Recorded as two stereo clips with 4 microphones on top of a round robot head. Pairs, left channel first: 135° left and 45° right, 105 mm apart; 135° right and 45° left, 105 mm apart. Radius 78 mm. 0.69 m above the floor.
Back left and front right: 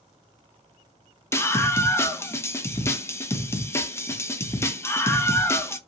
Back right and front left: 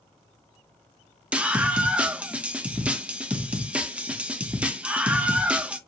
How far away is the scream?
About 0.6 m.